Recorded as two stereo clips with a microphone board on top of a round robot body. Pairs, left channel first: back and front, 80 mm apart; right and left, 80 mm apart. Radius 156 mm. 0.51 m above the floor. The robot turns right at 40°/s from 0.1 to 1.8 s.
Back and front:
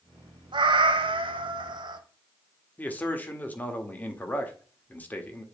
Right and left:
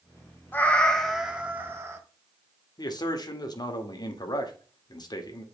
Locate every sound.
0.5 s a cat meowing: 20° right, 1.1 m; by 2.0 s 30° left, 1.1 m
2.8 s a man speaking: 115° right, 1.9 m